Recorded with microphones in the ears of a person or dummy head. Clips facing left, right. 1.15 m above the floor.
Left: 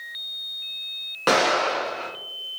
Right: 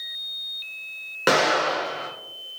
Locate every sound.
1.3 s an explosion: 15° right (ahead or behind), 1.1 m